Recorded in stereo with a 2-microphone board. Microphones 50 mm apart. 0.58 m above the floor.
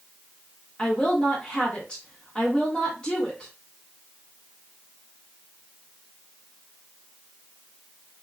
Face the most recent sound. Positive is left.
turn(degrees=20)  # may be behind; listen again after turning